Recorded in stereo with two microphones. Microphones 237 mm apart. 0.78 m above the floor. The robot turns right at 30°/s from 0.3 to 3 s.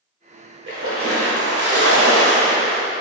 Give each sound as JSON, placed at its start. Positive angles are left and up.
{"t": 0.7, "sound": "a splash", "azimuth_deg": -125, "distance_m": 1.6}